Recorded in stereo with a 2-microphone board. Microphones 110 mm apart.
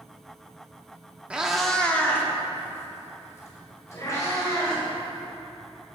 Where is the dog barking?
No dog barking in this recording.